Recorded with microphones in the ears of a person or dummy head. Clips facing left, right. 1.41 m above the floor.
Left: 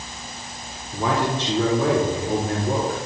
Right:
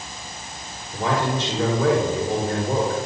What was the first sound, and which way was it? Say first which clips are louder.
A man speaking: even; 85° left.